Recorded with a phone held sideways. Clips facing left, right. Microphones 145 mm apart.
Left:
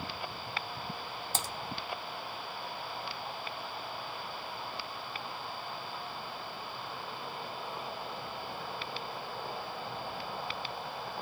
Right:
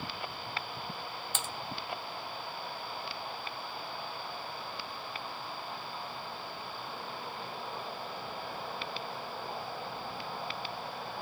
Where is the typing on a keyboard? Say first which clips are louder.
Left 4 dB; 40° left (ahead or behind), 0.6 m.